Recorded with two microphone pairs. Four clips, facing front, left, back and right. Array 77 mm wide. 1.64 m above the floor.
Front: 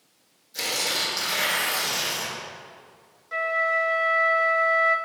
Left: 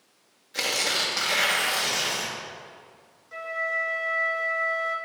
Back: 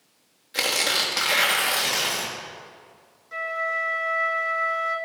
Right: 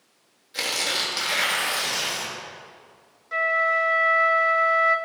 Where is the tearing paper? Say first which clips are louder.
Even, back 4 dB; 165° left, 1.7 m.